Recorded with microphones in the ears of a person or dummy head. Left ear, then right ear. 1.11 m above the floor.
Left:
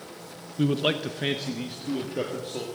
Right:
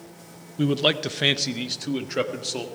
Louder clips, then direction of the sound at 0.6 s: Right 3 dB; 10° right (ahead or behind).